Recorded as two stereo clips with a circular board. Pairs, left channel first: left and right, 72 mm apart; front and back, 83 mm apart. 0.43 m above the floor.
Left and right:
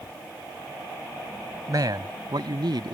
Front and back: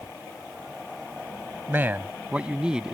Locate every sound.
1.7 s a man speaking: 115° right; by 2.9 s 95° right